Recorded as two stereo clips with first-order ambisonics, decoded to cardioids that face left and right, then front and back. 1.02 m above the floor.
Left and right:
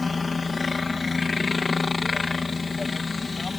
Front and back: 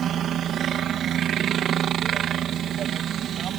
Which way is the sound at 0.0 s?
160° left.